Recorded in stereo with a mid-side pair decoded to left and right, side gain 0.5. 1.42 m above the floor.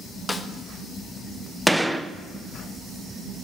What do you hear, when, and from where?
0.3 s a snare drum: 20° left, 0.9 m
1.7 s a gunshot: 5° right, 0.7 m